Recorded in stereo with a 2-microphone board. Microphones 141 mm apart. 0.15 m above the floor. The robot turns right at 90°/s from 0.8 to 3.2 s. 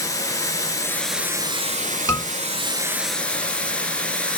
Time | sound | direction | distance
0.0 | running water | 155° left | 0.7 m
2.1 | a scream | 20° left (ahead or behind) | 1.9 m